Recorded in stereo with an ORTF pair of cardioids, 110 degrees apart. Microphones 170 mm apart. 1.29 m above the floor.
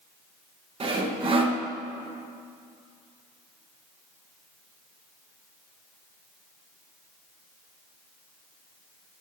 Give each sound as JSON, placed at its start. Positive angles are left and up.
{"t": 0.8, "sound": "sawing", "azimuth_deg": -30, "distance_m": 1.1}